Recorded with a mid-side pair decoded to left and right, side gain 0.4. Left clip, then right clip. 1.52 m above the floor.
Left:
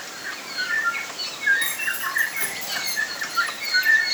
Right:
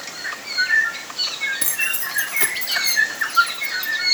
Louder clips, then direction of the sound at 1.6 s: Right 2 dB; 65° right.